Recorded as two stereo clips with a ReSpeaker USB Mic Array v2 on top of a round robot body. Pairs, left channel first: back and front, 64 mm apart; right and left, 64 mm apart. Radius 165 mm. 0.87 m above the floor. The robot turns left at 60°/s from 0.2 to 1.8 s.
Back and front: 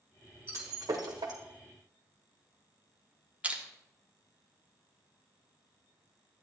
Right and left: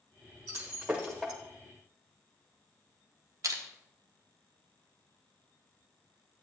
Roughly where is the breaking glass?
Ahead left.